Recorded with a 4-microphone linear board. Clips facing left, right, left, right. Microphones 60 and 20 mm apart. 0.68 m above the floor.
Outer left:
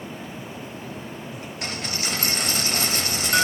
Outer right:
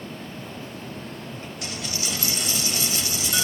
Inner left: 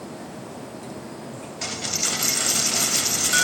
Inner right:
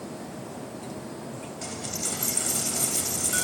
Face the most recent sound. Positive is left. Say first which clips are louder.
# outer left 3 dB, inner left 8 dB
turn(degrees=50)  # may be behind; listen again after turning